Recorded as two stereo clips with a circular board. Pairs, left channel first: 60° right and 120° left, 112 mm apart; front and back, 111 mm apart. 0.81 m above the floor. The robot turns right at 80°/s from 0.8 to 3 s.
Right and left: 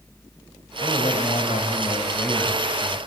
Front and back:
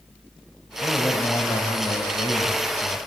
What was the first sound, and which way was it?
A man speaking, 110° right.